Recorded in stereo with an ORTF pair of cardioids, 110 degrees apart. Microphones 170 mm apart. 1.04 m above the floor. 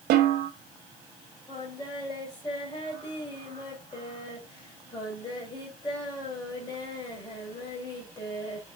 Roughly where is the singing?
Ahead left.